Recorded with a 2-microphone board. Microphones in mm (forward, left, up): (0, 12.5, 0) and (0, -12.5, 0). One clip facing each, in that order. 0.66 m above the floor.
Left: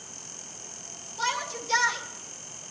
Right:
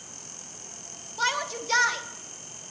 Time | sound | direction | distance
1.2 | a shout | 25° right (ahead or behind) | 0.9 m